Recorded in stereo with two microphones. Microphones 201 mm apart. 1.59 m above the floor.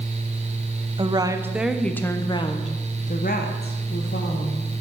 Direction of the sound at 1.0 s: 25° right (ahead or behind).